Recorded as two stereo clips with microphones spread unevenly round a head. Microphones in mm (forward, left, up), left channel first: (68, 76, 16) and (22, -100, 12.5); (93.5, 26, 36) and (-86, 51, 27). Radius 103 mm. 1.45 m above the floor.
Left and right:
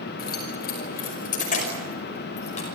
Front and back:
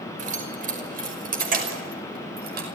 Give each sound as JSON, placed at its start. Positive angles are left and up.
{"t": 0.2, "sound": "keys jangling", "azimuth_deg": 125, "distance_m": 5.0}